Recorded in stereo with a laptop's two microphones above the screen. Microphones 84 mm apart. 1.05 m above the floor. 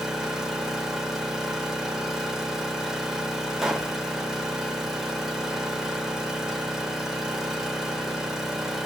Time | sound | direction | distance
0.0 | an engine running | 5° right (ahead or behind) | 1.2 m
3.6 | a pop | 5° right (ahead or behind) | 0.5 m